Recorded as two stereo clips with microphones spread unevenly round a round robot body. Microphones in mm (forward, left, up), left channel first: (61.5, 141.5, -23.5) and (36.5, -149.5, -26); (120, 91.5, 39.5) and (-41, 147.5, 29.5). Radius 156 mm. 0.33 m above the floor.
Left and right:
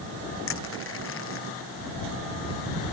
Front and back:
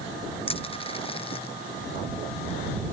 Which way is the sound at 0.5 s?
40° left.